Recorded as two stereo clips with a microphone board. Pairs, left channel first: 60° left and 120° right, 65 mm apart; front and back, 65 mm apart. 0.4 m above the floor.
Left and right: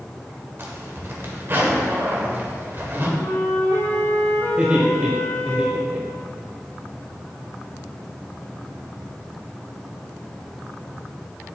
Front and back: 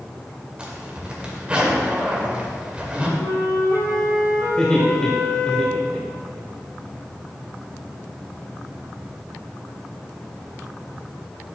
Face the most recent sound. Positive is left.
turn(degrees=-65)